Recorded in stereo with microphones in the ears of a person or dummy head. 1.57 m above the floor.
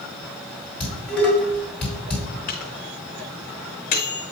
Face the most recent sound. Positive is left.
turn(degrees=30)  # may be behind; listen again after turning